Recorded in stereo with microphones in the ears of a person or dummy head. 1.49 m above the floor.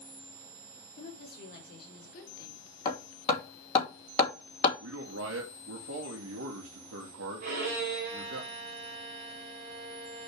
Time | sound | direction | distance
1.0 | a woman speaking | 60° left (ahead or behind) | 3.5 m
2.9 | hammering | 35° left (ahead or behind) | 2.5 m
4.8 | a man speaking | 75° right (ahead or behind) | 2 m
7.4 | a violin | 50° right (ahead or behind) | 2 m